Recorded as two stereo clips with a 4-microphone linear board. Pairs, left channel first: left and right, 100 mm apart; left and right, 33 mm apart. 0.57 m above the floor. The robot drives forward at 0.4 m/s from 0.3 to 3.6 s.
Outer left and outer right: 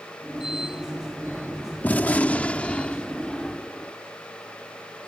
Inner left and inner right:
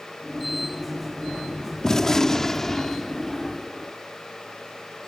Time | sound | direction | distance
1.8 | a gunshot | 20° left (ahead or behind) | ?